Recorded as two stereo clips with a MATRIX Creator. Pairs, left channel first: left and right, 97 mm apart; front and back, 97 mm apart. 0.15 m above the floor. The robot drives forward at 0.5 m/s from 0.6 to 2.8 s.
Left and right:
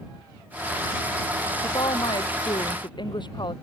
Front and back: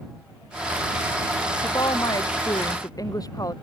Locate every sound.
1.6 s a woman speaking: 50° left